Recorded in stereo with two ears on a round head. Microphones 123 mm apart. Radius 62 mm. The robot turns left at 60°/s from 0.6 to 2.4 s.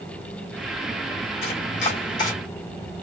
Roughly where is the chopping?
Left.